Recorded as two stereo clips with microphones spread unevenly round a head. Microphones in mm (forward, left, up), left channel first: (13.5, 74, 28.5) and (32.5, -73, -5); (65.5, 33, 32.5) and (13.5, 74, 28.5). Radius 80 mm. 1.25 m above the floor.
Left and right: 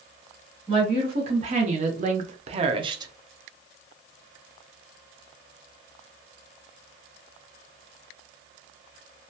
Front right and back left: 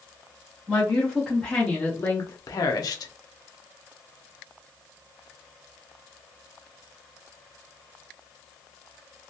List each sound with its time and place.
0.7 s a woman speaking: 135° right, 1.2 m; by 3.1 s 25° right, 0.7 m